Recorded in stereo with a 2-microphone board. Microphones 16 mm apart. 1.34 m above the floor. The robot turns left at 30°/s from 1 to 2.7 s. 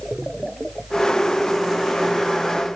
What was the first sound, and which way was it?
Only background noise.